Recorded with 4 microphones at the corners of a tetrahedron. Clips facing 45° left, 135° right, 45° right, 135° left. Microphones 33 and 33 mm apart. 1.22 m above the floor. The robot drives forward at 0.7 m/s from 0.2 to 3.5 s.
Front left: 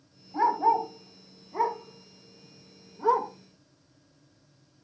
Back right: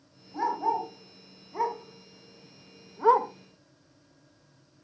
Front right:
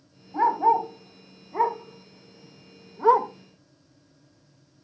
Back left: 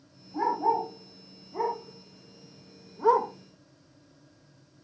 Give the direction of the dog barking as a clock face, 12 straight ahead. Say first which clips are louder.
Front left 5 dB, front right 5 dB; 1 o'clock.